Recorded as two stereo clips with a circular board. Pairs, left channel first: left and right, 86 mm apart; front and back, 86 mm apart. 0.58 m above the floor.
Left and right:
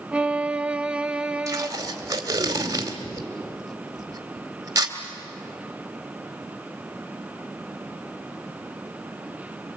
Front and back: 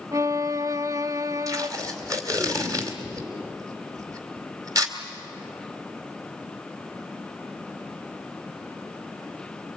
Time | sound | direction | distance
0.1 | a violin | 160° right | 0.5 m
1.5 | tape being pulled | 135° right | 2.5 m